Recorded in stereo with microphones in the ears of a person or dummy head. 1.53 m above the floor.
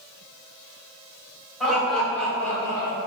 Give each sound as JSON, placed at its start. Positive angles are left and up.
{"t": 1.6, "sound": "laughter", "side_deg": 10, "distance_m": 1.9}